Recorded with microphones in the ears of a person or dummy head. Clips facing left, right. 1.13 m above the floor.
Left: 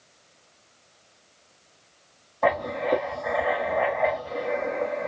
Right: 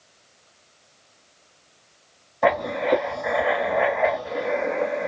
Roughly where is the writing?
Centre.